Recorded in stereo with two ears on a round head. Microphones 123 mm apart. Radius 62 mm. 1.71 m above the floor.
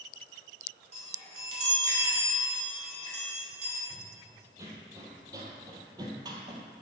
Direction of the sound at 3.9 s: 20° right (ahead or behind).